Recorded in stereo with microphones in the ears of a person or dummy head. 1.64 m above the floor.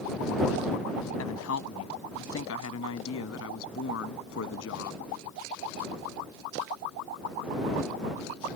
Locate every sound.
1.2 s a woman speaking: 75° left (ahead or behind); by 5.1 s 65° left (ahead or behind)